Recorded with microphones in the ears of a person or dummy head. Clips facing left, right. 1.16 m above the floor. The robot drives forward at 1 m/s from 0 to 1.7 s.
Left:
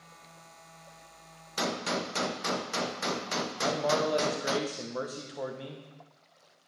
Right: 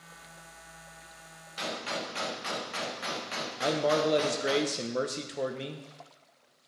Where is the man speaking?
30° right (ahead or behind), 0.9 m.